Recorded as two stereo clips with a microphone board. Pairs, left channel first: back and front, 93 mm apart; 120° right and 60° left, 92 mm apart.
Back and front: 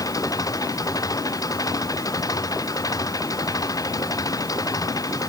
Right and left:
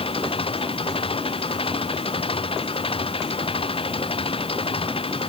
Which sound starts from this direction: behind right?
An engine running, at 0.0 s.